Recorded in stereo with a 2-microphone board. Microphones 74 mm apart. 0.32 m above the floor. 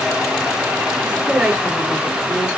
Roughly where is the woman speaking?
Centre.